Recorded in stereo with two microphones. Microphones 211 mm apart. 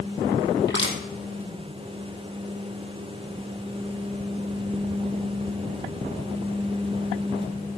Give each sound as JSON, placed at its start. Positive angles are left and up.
{"t": 0.7, "sound": "crushing", "side_deg": 60, "distance_m": 3.0}